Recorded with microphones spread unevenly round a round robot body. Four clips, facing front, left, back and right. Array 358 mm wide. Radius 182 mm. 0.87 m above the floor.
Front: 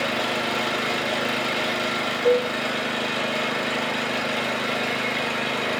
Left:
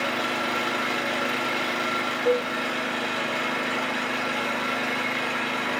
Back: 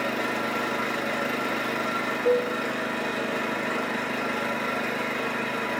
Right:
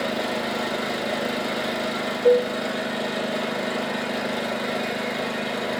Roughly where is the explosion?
No explosion in this recording.